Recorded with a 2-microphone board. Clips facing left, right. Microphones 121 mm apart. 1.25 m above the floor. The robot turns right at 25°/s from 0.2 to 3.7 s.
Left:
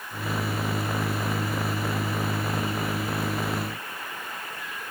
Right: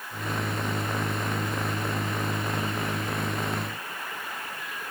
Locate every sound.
Only background noise.